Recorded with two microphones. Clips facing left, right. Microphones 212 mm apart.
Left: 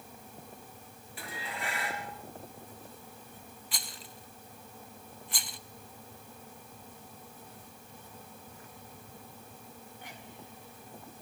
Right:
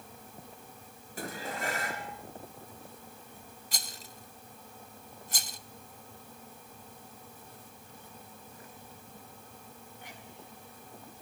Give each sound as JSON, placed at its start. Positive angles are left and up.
{"t": 1.2, "sound": "dishes clattering", "side_deg": -40, "distance_m": 3.0}
{"t": 3.7, "sound": "a rattle", "side_deg": -40, "distance_m": 0.5}